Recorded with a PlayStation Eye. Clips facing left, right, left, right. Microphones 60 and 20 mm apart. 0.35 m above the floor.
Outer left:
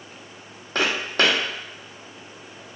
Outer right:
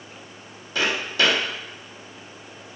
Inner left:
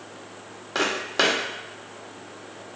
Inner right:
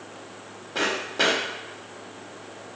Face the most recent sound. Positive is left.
turn(degrees=50)  # may be behind; listen again after turning